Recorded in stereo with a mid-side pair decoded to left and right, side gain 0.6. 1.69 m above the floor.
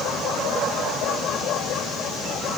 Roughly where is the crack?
I don't hear a crack.